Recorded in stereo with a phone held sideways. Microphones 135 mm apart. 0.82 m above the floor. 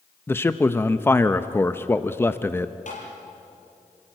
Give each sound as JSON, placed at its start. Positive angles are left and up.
{"t": 0.3, "sound": "a man speaking", "side_deg": 15, "distance_m": 0.5}
{"t": 2.9, "sound": "tapping", "side_deg": 70, "distance_m": 5.5}